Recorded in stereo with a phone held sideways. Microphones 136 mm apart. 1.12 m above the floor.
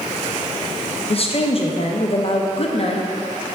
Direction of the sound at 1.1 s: 45° left (ahead or behind).